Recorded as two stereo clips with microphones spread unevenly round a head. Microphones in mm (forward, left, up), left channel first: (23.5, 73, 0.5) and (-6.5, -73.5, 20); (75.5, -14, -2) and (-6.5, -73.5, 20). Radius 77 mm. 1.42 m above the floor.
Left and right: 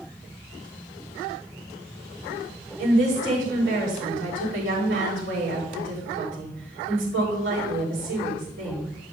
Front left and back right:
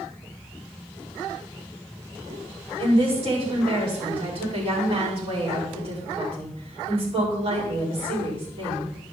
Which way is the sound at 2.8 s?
115° right.